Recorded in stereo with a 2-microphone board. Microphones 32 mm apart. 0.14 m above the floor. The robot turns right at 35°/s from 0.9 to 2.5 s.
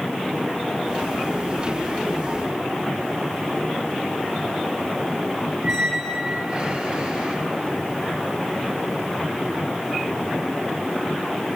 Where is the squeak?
35° right (ahead or behind), 1.9 m.